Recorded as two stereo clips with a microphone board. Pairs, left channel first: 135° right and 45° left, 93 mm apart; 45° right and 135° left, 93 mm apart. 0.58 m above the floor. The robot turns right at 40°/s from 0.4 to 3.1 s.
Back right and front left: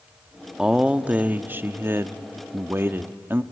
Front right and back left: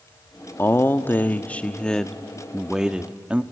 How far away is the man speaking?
About 0.6 m.